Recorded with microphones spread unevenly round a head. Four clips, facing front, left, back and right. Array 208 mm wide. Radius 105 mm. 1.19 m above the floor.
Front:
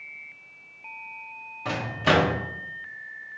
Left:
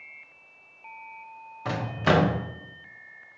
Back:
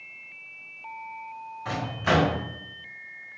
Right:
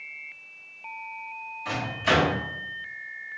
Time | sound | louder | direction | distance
1.6 | a microwave | left 2 dB, front 2 dB | 50° left | 0.6 m